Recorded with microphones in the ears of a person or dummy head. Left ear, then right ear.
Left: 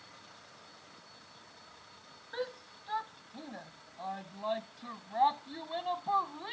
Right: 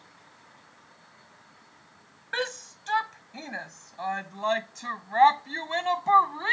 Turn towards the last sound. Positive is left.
turn(degrees=-70)  # may be behind; listen again after turning